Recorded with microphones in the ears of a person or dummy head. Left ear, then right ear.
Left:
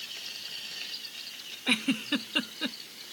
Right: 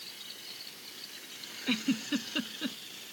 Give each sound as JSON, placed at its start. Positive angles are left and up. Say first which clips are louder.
{"t": 1.7, "sound": "a giggle", "louder": "left 4 dB", "side_deg": 30}